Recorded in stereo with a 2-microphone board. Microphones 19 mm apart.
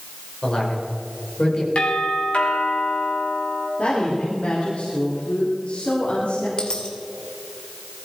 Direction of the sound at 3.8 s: 85° left.